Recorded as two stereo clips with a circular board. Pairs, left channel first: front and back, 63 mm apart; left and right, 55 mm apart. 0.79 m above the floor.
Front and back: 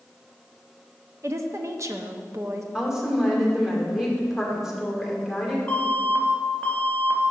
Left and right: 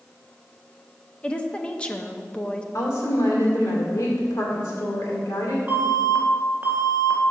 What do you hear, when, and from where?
1.2 s a woman speaking: 160° left, 0.6 m
2.7 s a woman speaking: 95° left, 2.5 m
5.7 s an alarm: 55° right, 1.6 m